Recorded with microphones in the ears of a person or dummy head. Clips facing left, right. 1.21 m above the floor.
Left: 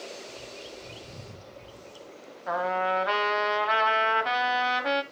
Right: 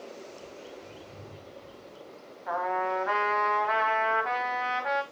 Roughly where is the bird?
Left.